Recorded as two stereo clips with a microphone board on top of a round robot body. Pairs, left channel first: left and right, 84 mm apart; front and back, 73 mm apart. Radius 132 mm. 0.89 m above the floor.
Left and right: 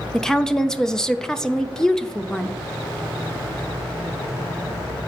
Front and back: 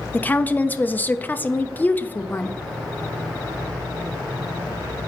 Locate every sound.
0.1 s a woman speaking: 15° left, 0.6 m